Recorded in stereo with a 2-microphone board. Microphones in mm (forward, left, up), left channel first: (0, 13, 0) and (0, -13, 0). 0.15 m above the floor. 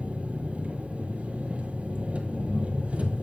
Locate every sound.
0.0 s an engine running: 55° right (ahead or behind), 1.2 m